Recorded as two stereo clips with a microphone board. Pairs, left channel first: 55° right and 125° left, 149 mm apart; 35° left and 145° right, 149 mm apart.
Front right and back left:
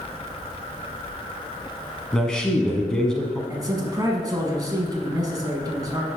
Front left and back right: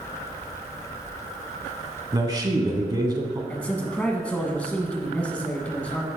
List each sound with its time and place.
2.1 s a man speaking: 135° right, 1.1 m
3.5 s a man speaking: 105° left, 1.1 m